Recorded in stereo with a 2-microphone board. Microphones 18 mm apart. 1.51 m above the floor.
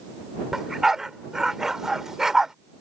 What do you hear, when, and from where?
0.5 s a dog barking: 25° right (ahead or behind)